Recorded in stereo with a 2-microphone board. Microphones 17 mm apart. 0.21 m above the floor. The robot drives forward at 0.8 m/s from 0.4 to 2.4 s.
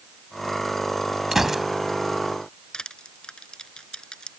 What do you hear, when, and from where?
1.3 s a gunshot: 20° right (ahead or behind)
2.7 s crushing: 50° left (ahead or behind)